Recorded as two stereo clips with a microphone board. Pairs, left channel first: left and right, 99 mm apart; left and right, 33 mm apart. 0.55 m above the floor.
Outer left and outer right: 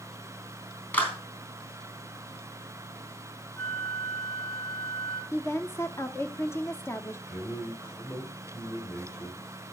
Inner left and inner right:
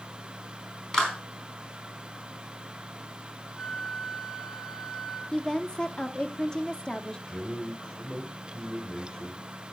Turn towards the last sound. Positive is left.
turn(degrees=35)  # may be behind; listen again after turning